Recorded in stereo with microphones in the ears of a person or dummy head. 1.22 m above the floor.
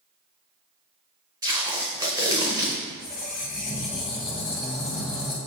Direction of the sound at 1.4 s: 20° right (ahead or behind).